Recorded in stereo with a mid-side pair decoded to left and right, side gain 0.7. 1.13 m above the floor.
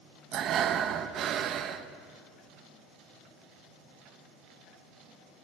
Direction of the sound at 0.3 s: 45° right.